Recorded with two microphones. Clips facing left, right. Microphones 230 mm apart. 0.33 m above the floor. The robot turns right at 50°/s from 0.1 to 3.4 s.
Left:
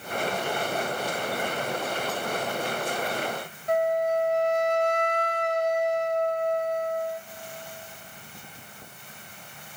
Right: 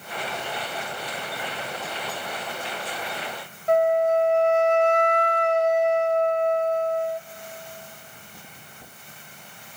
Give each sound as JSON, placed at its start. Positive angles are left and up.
{"t": 3.7, "sound": "a flute", "side_deg": -65, "distance_m": 0.5}